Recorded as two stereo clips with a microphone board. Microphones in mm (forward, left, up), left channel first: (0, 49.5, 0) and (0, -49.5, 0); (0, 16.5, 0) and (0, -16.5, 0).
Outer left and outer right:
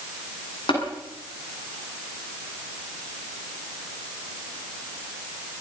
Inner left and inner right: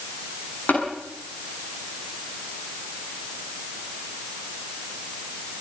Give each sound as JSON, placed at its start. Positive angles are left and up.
{"t": 0.7, "sound": "tapping", "side_deg": 55, "distance_m": 8.5}